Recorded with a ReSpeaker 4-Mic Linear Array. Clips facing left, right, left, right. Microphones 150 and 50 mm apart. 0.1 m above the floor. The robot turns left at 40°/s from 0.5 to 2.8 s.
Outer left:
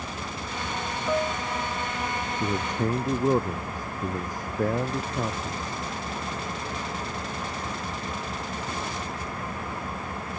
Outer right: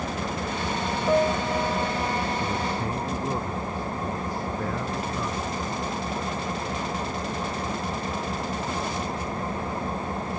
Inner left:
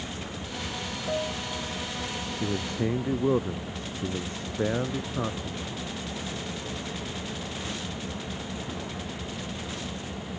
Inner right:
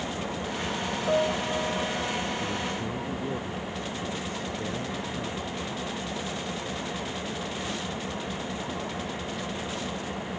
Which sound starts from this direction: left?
A man speaking, at 2.4 s.